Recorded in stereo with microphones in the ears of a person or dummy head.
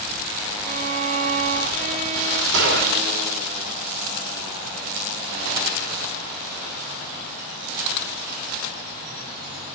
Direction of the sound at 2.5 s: 75° right (ahead or behind).